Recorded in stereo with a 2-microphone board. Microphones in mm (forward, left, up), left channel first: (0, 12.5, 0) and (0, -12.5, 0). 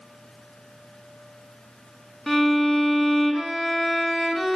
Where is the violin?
10° left (ahead or behind), 1.7 m.